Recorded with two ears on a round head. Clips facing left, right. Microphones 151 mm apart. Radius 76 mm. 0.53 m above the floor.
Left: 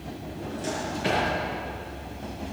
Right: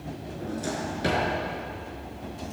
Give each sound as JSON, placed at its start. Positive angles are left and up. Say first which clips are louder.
{"t": 0.3, "sound": "a drawer", "louder": "even", "side_deg": -55, "distance_m": 4.5}